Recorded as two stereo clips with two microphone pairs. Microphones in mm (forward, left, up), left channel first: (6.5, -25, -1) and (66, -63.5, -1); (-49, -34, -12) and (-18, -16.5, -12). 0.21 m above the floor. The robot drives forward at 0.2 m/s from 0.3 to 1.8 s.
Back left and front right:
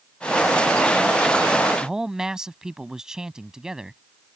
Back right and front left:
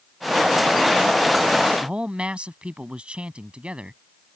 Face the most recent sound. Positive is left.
turn(degrees=35)